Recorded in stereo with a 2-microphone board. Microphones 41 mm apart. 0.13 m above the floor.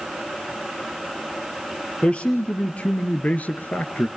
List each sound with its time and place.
2.0 s a man speaking: 30° left (ahead or behind), 2.5 m; by 4.1 s 40° left (ahead or behind), 1.5 m